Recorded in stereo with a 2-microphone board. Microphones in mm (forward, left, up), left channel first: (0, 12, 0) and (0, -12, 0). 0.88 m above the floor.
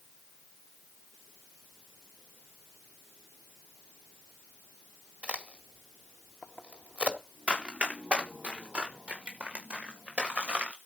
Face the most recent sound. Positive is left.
turn(degrees=-80)